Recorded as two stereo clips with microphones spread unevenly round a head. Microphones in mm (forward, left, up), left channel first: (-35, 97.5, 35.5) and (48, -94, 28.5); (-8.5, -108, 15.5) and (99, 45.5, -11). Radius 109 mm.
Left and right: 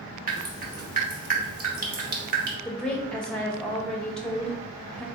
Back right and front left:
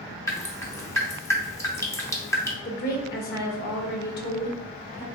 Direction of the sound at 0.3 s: 75° right.